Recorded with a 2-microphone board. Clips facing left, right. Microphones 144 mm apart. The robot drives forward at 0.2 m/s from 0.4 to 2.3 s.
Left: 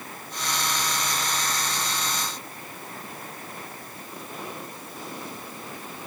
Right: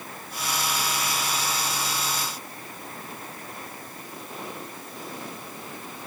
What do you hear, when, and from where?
Only background noise.